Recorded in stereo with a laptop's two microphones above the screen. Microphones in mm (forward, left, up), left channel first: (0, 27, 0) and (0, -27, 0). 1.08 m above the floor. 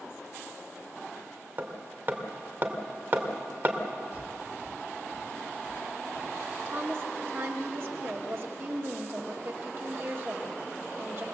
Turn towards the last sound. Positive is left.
turn(degrees=-45)  # may be behind; listen again after turning